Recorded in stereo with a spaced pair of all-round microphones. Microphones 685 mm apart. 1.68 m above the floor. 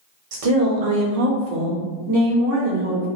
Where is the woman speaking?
50° right (ahead or behind), 0.8 m; by 3.1 s 30° right (ahead or behind), 1.4 m.